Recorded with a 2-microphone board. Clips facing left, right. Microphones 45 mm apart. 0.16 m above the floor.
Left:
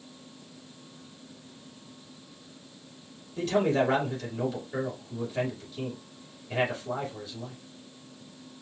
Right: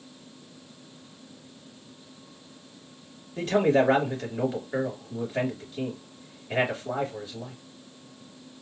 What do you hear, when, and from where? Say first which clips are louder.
3.4 s a man speaking: right 3 dB; 40° right (ahead or behind), 3 m